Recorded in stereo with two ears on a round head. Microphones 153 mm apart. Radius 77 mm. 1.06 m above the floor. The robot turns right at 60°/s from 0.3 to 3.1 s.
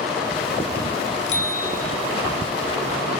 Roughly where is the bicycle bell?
Left.